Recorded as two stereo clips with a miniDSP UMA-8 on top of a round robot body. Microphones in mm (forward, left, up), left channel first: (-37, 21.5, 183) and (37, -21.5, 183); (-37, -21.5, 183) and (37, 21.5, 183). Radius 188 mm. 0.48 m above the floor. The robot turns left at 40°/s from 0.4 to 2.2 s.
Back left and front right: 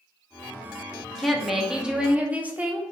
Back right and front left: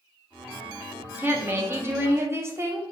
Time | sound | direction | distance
1.2 | a woman speaking | 65° left | 0.8 m